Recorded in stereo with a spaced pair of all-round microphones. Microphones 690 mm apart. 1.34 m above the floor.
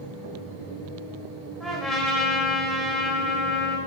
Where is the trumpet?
Centre (ahead or behind), 3.5 m.